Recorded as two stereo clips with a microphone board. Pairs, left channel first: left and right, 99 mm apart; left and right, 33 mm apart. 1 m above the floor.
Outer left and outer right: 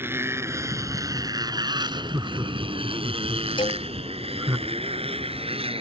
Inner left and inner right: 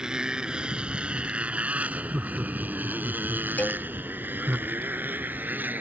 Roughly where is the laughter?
Right.